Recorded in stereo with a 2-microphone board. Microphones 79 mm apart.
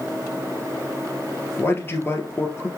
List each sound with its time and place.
1.6 s a man speaking: 30° left (ahead or behind), 1.8 m